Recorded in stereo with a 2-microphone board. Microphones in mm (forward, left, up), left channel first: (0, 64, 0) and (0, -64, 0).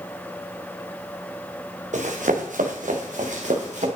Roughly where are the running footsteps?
Right.